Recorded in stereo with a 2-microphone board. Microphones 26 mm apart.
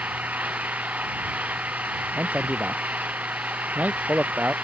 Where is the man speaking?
70° right (ahead or behind).